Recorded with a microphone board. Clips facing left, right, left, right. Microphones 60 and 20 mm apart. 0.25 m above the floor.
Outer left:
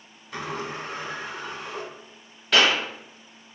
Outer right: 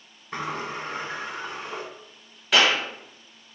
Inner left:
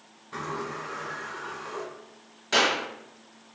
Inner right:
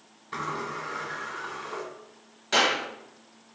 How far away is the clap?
About 0.9 m.